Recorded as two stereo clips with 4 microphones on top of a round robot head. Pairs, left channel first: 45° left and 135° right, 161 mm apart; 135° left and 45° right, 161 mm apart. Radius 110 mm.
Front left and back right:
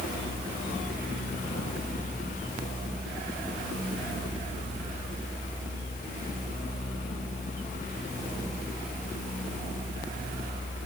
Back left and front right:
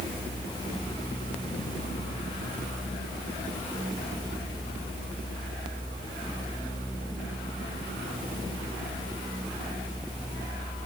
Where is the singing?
No singing in this recording.